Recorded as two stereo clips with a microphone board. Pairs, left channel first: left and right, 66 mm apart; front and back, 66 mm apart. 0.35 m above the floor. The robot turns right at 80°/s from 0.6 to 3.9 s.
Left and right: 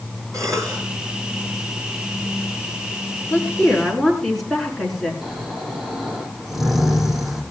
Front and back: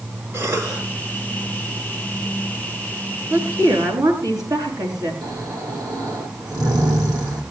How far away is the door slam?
I don't hear a door slam.